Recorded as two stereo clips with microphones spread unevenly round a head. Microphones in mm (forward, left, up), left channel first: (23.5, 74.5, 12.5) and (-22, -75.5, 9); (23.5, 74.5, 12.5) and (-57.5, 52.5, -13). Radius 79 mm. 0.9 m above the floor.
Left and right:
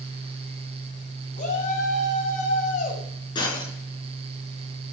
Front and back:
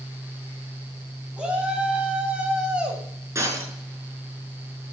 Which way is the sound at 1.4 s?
115° left.